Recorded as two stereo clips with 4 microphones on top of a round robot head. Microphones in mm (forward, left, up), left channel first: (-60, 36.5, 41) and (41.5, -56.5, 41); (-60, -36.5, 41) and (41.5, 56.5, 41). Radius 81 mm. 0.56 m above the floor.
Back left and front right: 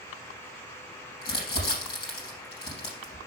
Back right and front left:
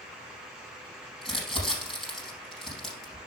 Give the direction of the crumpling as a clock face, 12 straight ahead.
7 o'clock.